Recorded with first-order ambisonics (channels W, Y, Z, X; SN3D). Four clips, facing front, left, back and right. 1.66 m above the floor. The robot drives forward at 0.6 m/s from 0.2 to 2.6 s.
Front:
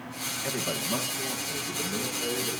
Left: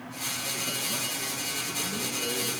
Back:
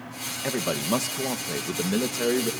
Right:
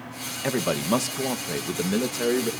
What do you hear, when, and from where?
0.4 s a man speaking: 110° right, 2 m; by 2.5 s 135° right, 2.5 m